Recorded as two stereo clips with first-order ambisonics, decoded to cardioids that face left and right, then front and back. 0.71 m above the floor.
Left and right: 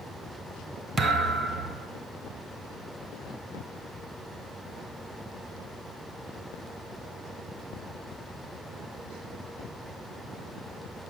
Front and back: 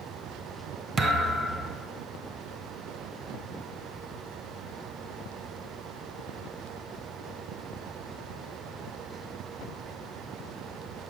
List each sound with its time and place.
1.0 s a thud: 135° right, 0.7 m